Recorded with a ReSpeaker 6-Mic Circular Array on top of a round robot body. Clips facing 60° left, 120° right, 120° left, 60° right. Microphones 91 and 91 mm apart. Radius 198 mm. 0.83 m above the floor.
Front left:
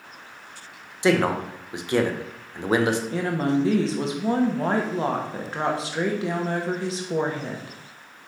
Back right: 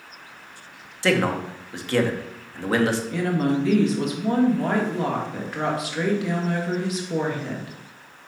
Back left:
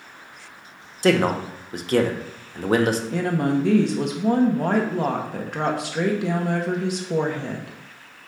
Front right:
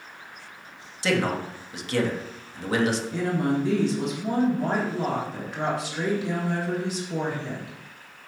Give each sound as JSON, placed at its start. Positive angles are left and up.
{"t": 1.0, "sound": "a man speaking", "azimuth_deg": 125, "distance_m": 1.2}
{"t": 3.1, "sound": "a woman speaking", "azimuth_deg": 115, "distance_m": 1.8}